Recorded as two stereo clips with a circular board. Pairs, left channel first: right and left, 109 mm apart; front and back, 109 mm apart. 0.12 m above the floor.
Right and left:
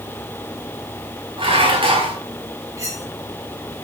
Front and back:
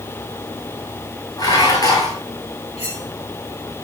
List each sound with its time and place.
1.4 s dishes clattering: 55° left, 6 m
2.8 s cutlery clinking: 30° left, 9.5 m